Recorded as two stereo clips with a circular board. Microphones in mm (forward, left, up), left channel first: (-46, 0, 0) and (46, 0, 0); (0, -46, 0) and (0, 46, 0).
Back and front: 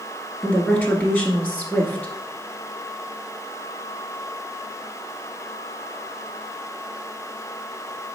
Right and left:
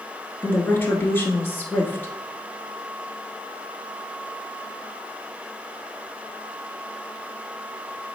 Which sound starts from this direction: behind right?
A woman speaking, at 0.4 s.